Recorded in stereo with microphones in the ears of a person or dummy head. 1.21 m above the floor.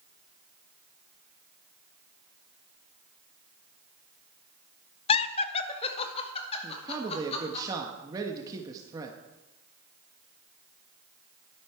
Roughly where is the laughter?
Left.